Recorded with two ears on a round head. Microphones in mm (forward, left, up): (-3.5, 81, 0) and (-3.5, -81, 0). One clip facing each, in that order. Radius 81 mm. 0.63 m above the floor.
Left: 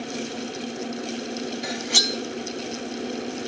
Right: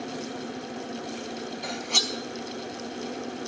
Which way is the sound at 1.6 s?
10° left (ahead or behind).